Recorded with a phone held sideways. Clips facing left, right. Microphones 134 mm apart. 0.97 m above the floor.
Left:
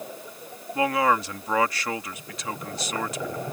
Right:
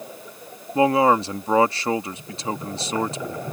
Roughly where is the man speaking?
Right.